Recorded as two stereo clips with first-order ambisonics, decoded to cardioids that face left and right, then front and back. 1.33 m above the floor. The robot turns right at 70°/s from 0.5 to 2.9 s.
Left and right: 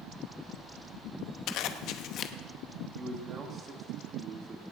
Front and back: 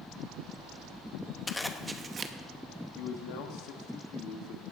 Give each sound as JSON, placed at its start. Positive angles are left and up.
{"t": 1.5, "sound": "a zipper", "azimuth_deg": 75, "distance_m": 0.8}
{"t": 3.0, "sound": "a man speaking", "azimuth_deg": -25, "distance_m": 1.9}